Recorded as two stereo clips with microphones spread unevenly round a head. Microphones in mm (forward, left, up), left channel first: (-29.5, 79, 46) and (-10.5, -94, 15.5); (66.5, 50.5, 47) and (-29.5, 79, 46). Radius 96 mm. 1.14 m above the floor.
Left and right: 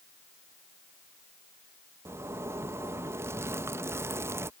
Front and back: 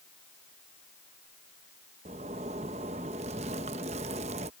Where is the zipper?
160° right.